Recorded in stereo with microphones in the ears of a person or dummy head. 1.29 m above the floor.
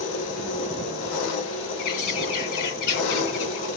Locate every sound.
0.0 s an engine running: 80° left, 1.5 m
1.8 s a bird: 55° left (ahead or behind), 1.8 m